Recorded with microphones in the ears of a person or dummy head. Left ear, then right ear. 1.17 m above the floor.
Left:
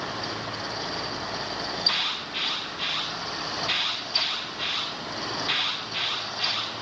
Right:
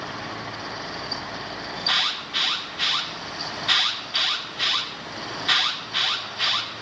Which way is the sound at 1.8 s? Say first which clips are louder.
Right 3 dB; 35° right (ahead or behind).